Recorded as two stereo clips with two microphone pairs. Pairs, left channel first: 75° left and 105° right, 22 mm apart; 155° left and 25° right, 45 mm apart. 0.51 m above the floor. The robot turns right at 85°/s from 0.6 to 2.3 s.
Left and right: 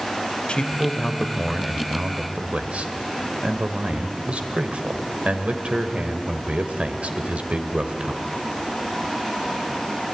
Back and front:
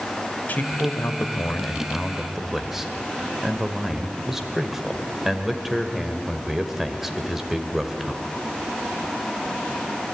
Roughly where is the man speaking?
Left.